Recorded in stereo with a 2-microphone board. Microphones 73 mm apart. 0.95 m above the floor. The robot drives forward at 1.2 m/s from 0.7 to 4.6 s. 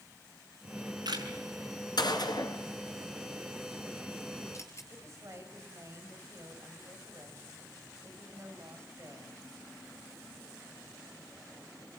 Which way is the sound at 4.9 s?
40° right (ahead or behind).